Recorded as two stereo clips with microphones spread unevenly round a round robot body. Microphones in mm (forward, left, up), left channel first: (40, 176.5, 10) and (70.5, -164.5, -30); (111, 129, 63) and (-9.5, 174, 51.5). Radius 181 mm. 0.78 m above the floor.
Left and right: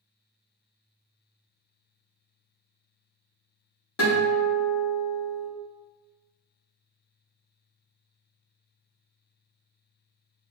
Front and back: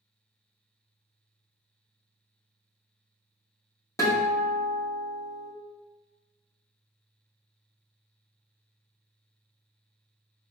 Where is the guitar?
45° left, 1.5 m.